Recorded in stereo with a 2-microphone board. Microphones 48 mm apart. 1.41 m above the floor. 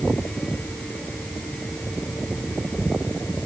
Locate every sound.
Only background noise.